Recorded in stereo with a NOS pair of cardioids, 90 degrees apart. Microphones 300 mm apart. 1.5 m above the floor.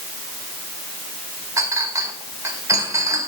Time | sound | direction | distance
1.6 | a clink | 10° right | 3.5 m